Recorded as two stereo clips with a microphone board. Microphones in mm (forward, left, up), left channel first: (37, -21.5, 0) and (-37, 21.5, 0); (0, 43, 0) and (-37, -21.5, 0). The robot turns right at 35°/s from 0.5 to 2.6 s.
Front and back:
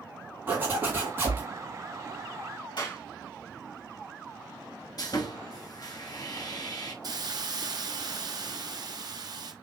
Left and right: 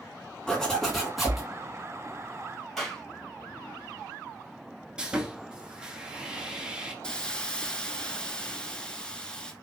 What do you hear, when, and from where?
0.5 s a zipper: 125° left, 1.7 m; by 1.4 s 160° left, 1.7 m
2.8 s a clap: 30° right, 2.5 m
5.0 s sawing: 45° right, 1.0 m
7.0 s a hiss: 135° left, 0.8 m